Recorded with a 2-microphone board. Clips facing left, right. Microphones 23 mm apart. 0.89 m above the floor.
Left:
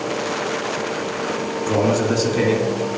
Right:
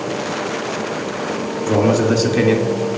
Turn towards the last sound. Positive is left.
turn(degrees=-30)  # may be behind; listen again after turning